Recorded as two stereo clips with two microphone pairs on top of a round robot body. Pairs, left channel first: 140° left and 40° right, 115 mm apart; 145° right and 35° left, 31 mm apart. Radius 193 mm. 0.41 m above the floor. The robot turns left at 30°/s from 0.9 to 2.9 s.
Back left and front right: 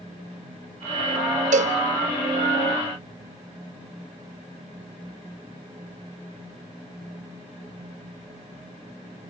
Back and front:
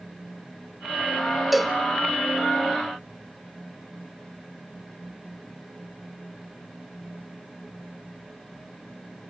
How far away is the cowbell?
About 0.6 m.